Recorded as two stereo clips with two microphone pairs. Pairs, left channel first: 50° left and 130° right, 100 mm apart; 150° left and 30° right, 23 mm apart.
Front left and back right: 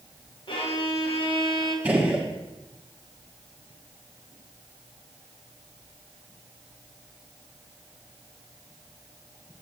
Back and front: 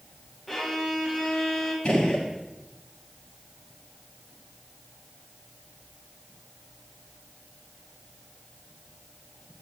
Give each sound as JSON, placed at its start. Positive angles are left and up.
{"t": 0.5, "sound": "a violin", "azimuth_deg": 75, "distance_m": 1.3}
{"t": 1.9, "sound": "a gunshot", "azimuth_deg": 160, "distance_m": 1.4}